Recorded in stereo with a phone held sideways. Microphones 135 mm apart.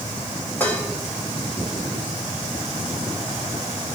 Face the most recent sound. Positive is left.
turn(degrees=15)  # may be behind; listen again after turning